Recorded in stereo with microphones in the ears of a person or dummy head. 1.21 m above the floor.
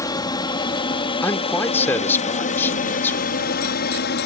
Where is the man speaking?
10° left (ahead or behind).